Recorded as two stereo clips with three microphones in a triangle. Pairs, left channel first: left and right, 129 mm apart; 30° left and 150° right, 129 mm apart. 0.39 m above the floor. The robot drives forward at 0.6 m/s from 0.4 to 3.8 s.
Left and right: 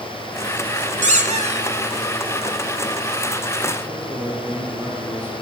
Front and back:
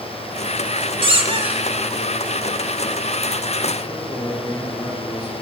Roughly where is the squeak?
Right.